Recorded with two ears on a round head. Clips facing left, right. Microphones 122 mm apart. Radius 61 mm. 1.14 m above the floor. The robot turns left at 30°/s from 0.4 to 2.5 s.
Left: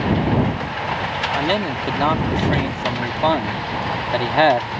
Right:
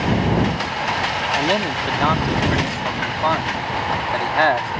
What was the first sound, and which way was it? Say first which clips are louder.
A man speaking: even; 170° right.